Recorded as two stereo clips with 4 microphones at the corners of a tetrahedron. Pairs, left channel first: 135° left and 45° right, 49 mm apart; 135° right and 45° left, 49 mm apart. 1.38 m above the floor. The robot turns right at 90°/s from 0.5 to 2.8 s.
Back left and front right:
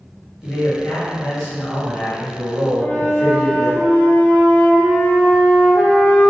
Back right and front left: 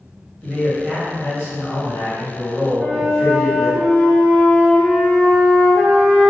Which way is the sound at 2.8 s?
Straight behind.